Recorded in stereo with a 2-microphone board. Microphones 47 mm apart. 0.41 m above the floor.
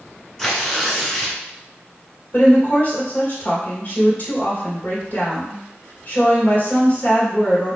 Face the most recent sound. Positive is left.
turn(degrees=40)  # may be behind; listen again after turning